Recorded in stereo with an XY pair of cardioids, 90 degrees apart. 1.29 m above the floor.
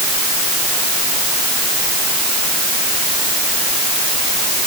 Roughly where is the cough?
I don't hear a cough.